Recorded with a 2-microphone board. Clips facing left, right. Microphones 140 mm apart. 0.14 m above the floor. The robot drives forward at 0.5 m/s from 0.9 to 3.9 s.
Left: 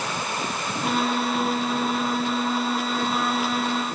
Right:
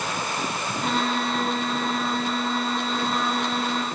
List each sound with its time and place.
Only background noise.